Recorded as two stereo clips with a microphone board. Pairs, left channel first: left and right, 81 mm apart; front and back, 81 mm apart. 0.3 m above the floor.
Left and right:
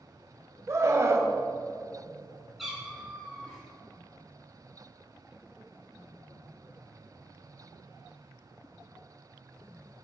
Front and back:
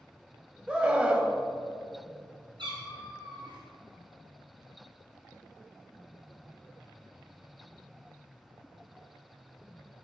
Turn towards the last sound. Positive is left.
turn(degrees=-175)